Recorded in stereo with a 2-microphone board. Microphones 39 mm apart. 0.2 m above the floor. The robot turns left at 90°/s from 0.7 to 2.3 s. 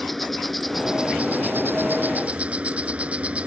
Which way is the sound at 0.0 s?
5° left.